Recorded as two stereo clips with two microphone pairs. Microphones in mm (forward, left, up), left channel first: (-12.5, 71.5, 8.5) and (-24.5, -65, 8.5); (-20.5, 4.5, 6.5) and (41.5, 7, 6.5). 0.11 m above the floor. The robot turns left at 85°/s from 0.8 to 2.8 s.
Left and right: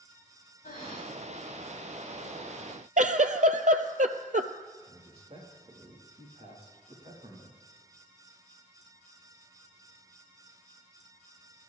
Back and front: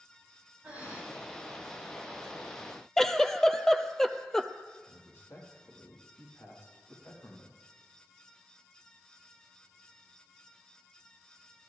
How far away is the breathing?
About 5 m.